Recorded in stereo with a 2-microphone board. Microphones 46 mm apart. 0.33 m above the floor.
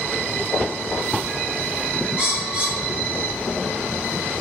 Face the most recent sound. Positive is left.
turn(degrees=-30)  # may be behind; listen again after turning